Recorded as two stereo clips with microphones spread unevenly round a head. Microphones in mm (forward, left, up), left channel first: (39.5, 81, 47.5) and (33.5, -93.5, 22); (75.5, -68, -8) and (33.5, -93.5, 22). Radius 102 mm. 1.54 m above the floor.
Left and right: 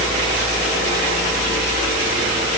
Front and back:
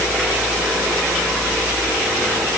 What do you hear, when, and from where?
Only background noise.